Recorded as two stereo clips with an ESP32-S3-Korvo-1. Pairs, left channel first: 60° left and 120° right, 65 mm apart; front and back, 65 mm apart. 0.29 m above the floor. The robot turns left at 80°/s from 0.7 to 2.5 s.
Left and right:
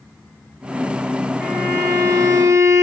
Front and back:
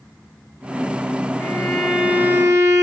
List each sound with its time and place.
1.4 s a violin: 60° right, 1.1 m; by 2.8 s 150° right, 1.1 m